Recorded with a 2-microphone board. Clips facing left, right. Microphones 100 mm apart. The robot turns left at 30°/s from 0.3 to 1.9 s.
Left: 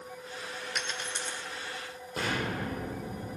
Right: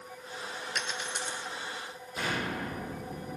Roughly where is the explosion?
Left.